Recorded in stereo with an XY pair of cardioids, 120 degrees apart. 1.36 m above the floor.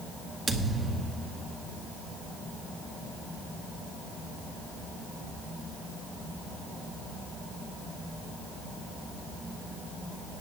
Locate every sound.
0.5 s a thud: 20° right, 2 m